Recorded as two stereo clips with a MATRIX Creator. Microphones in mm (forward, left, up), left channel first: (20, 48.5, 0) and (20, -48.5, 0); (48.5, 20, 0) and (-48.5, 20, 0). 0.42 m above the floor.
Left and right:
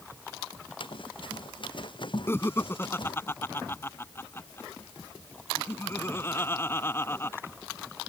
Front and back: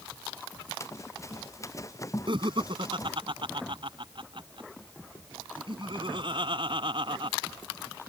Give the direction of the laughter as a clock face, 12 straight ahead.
7 o'clock.